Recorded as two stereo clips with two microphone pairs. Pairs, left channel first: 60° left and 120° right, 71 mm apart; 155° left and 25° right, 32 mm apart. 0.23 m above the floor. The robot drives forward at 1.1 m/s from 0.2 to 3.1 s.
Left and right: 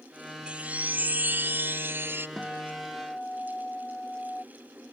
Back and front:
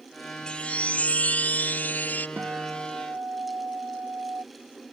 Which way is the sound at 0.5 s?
Straight behind.